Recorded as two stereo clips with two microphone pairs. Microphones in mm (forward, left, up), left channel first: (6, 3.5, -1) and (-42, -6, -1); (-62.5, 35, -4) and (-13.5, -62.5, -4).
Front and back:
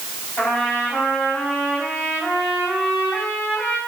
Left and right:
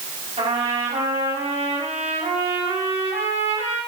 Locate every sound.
0.4 s a trumpet: 40° right, 5 m